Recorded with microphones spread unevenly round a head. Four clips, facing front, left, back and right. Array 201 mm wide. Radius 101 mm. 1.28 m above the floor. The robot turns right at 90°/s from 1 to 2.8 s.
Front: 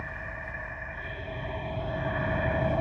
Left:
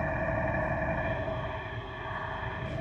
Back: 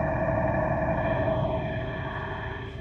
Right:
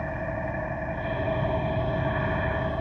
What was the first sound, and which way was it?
An engine running, 175° right.